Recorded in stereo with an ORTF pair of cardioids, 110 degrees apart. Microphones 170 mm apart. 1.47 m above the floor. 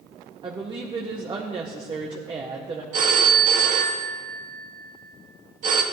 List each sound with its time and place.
0.4 s a woman speaking: 25° right, 1.4 m
2.9 s a phone ringing: 55° right, 1.6 m